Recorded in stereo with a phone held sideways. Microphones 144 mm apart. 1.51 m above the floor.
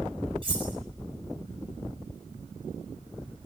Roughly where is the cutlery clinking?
Right.